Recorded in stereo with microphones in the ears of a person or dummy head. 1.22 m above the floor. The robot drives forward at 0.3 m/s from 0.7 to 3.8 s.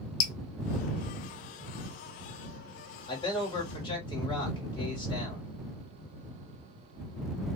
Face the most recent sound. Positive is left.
turn(degrees=25)  # may be behind; listen again after turning